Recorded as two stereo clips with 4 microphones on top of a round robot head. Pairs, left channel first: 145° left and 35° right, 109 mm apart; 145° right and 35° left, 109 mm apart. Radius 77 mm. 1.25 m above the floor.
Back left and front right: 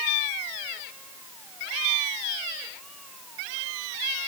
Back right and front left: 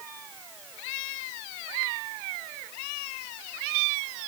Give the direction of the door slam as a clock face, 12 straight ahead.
No door slam in this recording.